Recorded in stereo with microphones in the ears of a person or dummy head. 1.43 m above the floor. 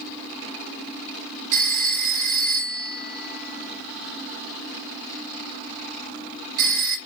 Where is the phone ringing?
45° right (ahead or behind), 1.2 m.